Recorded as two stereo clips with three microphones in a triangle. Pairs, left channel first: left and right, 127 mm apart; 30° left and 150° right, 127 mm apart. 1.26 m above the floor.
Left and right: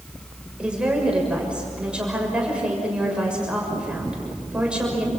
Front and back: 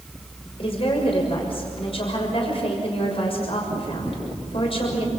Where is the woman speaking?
10° right, 6.5 m.